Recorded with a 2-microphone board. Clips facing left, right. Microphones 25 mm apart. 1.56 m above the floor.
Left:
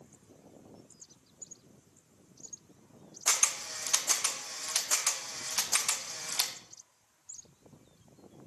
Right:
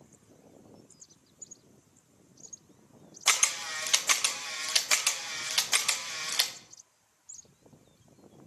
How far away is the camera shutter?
About 0.7 m.